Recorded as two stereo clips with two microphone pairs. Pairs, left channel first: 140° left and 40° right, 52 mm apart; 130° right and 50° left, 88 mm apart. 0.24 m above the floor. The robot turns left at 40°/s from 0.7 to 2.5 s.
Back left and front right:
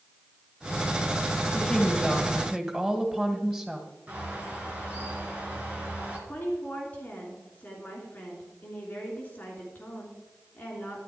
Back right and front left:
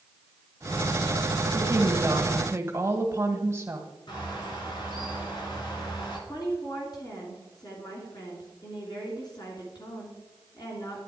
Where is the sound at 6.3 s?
165° right, 3 m.